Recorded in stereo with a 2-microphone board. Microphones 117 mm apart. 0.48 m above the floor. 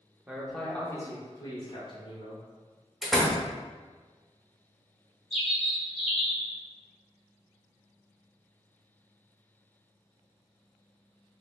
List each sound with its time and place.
0.3 s a man speaking: 10° right (ahead or behind), 0.7 m; by 2.4 s 60° left (ahead or behind), 1.2 m
3.0 s a door slam: centre (ahead or behind), 0.7 m
5.3 s a bird: centre (ahead or behind), 2.0 m